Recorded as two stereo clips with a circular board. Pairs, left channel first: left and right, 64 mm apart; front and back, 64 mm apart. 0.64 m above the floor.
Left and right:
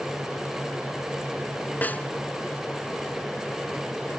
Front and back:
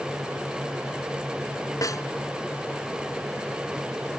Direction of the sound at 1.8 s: 25° left.